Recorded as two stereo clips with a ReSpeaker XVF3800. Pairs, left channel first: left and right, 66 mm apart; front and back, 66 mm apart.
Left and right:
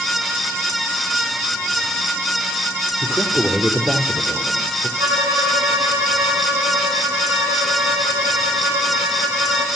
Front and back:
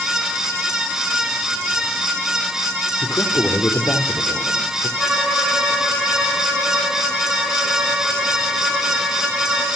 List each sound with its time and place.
3.0 s a man speaking: 30° right, 3 m
5.0 s a violin: 90° right, 5.5 m